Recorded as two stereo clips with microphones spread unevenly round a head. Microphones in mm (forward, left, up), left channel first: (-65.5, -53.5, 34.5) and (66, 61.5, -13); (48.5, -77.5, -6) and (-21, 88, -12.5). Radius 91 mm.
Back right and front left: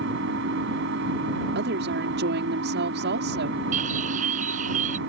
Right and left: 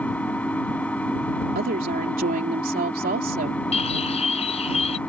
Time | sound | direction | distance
0.0 | an engine running | 15° left | ?
1.6 | a woman speaking | 70° left | ?
3.7 | a bird | 10° right | ?